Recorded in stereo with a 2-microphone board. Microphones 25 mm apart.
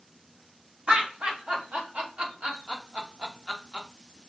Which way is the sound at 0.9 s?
65° right (ahead or behind).